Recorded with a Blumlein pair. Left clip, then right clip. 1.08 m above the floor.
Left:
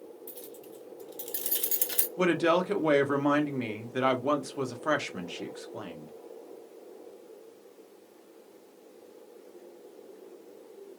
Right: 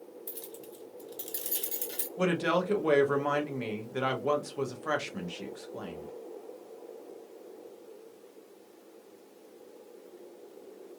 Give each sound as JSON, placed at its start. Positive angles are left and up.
{"t": 0.3, "sound": "keys jangling", "azimuth_deg": -30, "distance_m": 0.9}
{"t": 2.2, "sound": "a woman speaking", "azimuth_deg": 10, "distance_m": 0.6}